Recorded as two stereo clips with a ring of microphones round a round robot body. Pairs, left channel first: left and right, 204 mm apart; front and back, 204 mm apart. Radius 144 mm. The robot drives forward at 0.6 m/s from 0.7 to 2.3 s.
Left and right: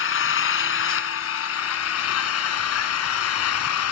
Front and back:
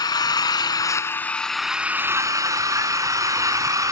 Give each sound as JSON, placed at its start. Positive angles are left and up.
{"t": 0.0, "sound": "an engine running", "azimuth_deg": 70, "distance_m": 1.7}